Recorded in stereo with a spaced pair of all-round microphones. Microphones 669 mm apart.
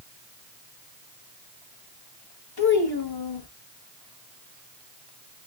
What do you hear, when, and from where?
2.6 s a child speaking: 35° left (ahead or behind), 1.4 m